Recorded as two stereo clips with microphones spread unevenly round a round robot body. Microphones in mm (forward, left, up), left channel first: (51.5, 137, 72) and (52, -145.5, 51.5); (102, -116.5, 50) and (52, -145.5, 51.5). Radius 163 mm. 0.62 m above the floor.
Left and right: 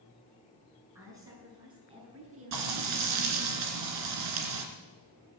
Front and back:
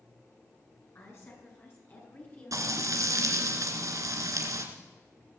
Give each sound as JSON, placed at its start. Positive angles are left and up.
{"t": 0.9, "sound": "a woman speaking", "azimuth_deg": -10, "distance_m": 6.0}
{"t": 2.5, "sound": "frying", "azimuth_deg": -130, "distance_m": 2.0}